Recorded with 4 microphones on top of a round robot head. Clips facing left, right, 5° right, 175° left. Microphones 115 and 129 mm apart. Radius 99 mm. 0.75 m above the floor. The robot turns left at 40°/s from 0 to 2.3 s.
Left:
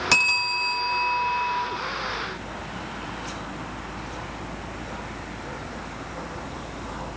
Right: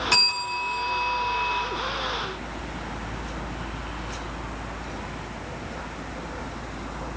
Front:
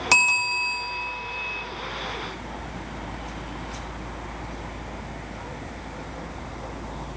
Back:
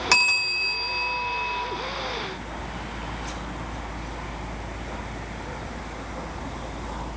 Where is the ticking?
I don't hear ticking.